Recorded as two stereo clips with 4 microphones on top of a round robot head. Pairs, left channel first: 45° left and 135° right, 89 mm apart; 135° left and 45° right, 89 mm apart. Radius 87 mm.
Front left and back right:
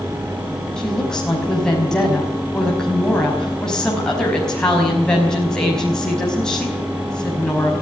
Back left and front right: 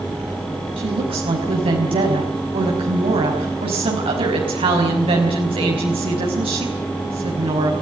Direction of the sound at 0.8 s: 35° right.